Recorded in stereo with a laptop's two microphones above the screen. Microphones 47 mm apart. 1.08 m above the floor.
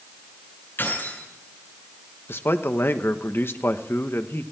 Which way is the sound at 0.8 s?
50° left (ahead or behind).